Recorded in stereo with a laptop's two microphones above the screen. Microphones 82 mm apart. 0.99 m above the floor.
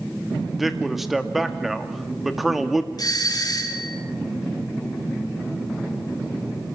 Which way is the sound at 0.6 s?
Centre (ahead or behind).